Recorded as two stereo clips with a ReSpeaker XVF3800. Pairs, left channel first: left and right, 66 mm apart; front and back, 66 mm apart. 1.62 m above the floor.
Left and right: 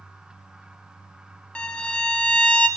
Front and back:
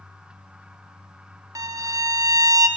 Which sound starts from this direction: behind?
A violin, at 1.6 s.